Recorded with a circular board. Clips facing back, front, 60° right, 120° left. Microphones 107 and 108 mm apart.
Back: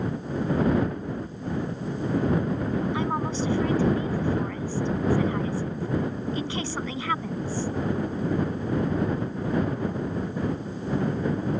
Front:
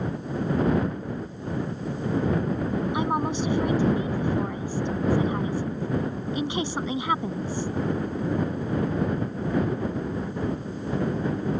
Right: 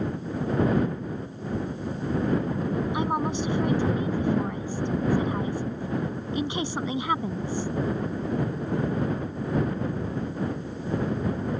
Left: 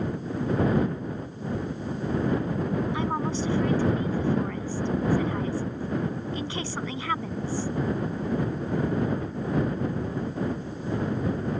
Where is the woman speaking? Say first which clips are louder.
Front 2 dB, right 1 dB; 30° right.